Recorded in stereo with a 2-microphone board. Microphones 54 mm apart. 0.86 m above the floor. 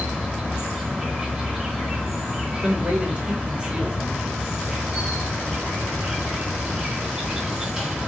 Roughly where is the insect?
Centre.